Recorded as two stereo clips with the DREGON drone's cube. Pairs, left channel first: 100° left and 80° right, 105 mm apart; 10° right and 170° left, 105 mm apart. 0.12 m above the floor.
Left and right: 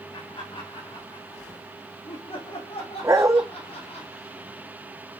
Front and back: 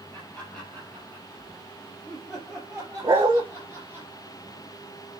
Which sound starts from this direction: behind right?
A dog barking, at 3.0 s.